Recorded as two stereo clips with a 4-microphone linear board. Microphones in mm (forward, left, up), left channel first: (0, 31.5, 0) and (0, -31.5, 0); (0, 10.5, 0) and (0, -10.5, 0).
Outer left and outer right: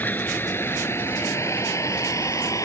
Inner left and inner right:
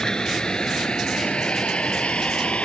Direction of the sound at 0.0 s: 30° left (ahead or behind).